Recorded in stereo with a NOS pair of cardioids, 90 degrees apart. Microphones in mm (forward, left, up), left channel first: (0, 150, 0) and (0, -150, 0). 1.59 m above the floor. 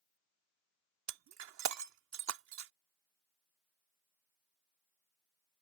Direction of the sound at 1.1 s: 70° right.